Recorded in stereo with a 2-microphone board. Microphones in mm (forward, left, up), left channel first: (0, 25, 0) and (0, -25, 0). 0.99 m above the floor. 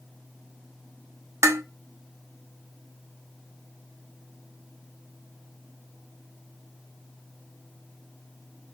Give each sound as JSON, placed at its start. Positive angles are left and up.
{"t": 1.4, "sound": "dishes clattering", "side_deg": -70, "distance_m": 0.6}